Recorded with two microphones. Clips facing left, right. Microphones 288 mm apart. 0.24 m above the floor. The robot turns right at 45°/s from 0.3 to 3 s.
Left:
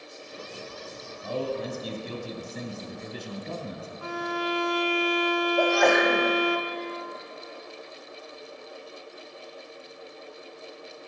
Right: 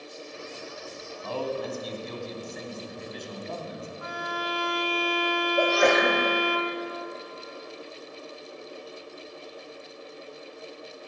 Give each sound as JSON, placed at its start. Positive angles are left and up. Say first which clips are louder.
{"t": 1.2, "sound": "a man speaking", "louder": "left 1 dB", "azimuth_deg": 25, "distance_m": 1.3}
{"t": 4.0, "sound": "a violin", "louder": "left 7 dB", "side_deg": 45, "distance_m": 1.0}
{"t": 5.6, "sound": "a sneeze", "louder": "even", "side_deg": -30, "distance_m": 1.2}